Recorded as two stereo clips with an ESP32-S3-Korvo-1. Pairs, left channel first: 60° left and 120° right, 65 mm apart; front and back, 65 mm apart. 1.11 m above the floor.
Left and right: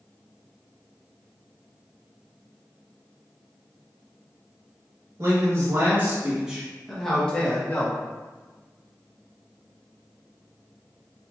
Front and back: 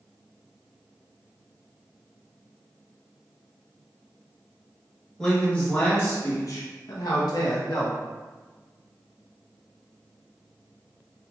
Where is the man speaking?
75° right, 1.2 m; by 8.0 s straight ahead, 1.3 m.